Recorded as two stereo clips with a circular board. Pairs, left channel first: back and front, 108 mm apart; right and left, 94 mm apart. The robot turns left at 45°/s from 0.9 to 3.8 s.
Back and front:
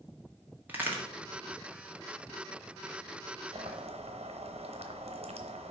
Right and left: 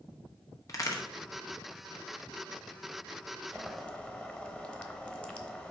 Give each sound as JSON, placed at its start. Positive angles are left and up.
{"t": 0.7, "sound": "a crack", "azimuth_deg": -65, "distance_m": 1.4}
{"t": 3.5, "sound": "boiling", "azimuth_deg": 0, "distance_m": 1.0}